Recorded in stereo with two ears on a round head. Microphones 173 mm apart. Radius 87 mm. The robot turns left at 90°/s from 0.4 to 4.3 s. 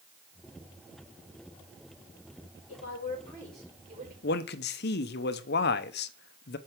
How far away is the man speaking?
About 0.8 m.